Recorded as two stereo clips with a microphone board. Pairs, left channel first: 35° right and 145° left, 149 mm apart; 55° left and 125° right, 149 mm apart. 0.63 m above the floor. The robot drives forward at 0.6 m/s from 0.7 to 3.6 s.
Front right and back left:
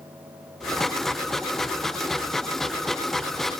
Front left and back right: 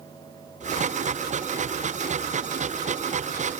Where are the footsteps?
I don't hear footsteps.